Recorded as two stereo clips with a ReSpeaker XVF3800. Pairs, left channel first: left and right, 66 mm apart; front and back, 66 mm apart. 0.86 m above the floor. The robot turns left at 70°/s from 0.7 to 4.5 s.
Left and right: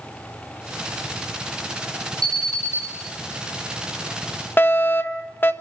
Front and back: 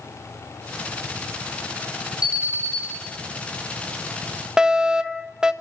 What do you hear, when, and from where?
2.2 s an alarm: 100° right, 10 m; by 2.8 s 145° right, 10 m
4.6 s a fire alarm: 105° left, 1.4 m